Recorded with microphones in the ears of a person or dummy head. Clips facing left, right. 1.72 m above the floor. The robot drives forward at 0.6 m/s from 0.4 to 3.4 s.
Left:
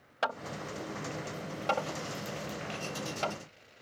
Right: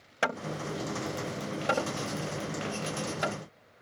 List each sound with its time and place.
0.2 s hammering: 30° right (ahead or behind); by 3.4 s 15° right (ahead or behind)